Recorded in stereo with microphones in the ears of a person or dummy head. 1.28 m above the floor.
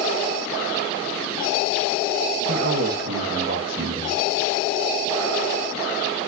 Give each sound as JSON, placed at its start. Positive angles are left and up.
{"t": 2.5, "sound": "a man speaking", "side_deg": -55, "distance_m": 1.1}